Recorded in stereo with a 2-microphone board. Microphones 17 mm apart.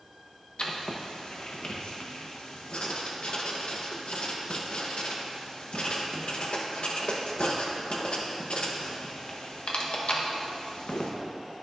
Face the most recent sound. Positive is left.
turn(degrees=65)  # may be behind; listen again after turning